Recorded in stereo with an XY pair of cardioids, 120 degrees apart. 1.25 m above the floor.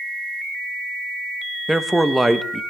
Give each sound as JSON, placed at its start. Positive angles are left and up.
{"t": 1.7, "sound": "a man speaking", "azimuth_deg": -5, "distance_m": 1.1}